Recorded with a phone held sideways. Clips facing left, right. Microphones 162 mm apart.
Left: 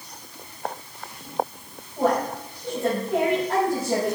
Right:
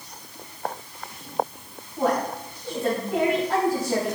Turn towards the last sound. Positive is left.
turn(degrees=50)  # may be behind; listen again after turning